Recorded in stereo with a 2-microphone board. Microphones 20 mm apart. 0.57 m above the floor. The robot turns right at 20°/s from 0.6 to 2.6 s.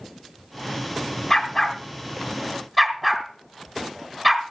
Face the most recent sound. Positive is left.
turn(degrees=5)  # may be behind; listen again after turning